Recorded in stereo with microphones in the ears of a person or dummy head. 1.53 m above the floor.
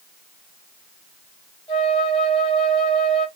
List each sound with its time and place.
1.7 s a flute: 30° left (ahead or behind), 3.5 m